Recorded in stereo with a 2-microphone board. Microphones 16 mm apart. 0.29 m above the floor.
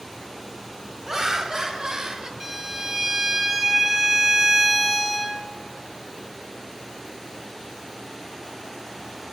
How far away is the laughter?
About 1.8 m.